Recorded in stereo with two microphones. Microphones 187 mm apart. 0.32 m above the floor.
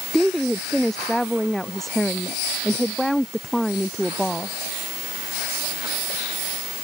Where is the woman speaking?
Centre (ahead or behind).